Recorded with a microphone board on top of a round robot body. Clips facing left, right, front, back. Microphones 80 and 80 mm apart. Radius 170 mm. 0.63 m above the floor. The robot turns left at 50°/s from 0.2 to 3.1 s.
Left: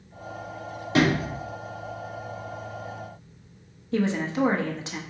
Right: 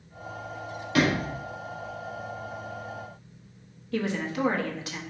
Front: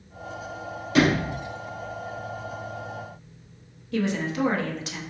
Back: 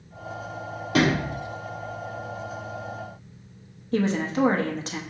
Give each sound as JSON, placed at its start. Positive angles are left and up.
{"t": 0.9, "sound": "a sliding door", "azimuth_deg": 150, "distance_m": 2.5}
{"t": 3.9, "sound": "a woman speaking", "azimuth_deg": 145, "distance_m": 1.1}